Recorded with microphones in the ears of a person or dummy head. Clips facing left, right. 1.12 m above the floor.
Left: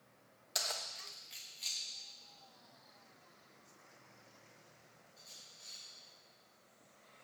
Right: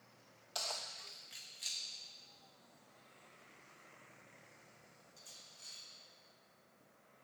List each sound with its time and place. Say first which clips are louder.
0.6 s keys jangling: left 1 dB; 25° left (ahead or behind), 0.7 m; by 5.8 s 50° right (ahead or behind), 3 m